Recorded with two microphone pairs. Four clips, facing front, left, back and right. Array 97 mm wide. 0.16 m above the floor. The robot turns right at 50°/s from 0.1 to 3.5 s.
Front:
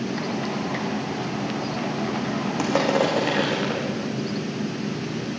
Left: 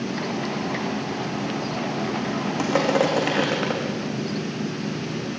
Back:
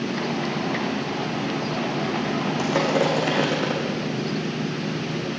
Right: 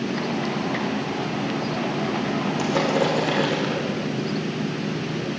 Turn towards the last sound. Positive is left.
turn(degrees=85)